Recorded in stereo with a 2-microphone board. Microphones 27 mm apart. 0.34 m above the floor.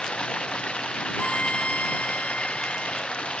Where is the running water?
40° left (ahead or behind).